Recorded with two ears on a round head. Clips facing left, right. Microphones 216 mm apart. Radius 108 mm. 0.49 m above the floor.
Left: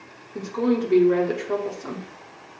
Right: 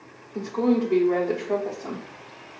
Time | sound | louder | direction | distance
0.3 | a woman speaking | right 1 dB | 15° left (ahead or behind) | 1.0 m